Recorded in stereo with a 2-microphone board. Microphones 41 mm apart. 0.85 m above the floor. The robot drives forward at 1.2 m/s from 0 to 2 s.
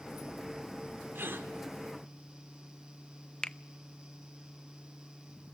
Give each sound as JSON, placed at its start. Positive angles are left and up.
{"t": 1.1, "sound": "a gasp", "side_deg": -60, "distance_m": 2.5}
{"t": 3.4, "sound": "a finger snap", "side_deg": 25, "distance_m": 0.6}